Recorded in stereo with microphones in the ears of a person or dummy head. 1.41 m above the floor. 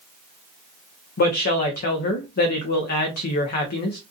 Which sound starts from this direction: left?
A woman speaking, at 1.2 s.